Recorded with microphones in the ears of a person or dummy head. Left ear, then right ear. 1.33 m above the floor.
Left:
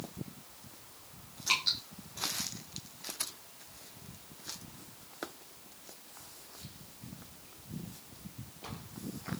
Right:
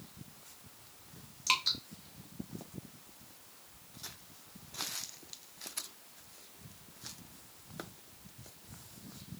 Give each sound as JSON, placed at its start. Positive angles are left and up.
{"t": 1.5, "sound": "dripping", "side_deg": -30, "distance_m": 1.0}